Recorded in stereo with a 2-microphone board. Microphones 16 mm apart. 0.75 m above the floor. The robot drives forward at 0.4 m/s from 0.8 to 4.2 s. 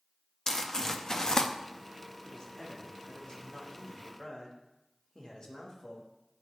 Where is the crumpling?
30° left (ahead or behind), 0.6 m; by 1.5 s 40° left (ahead or behind), 0.5 m.